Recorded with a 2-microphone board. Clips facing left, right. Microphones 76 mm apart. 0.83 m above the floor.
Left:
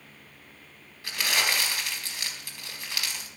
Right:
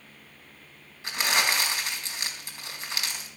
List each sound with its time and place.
1.0 s crumpling: 25° right (ahead or behind), 4 m